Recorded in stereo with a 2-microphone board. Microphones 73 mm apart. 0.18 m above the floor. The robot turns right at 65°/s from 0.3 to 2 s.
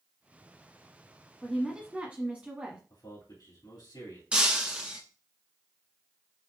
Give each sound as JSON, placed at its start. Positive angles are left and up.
{"t": 1.4, "sound": "a woman speaking", "azimuth_deg": 170, "distance_m": 1.3}
{"t": 2.9, "sound": "a man speaking", "side_deg": 70, "distance_m": 2.5}
{"t": 4.3, "sound": "breaking glass", "side_deg": -15, "distance_m": 0.8}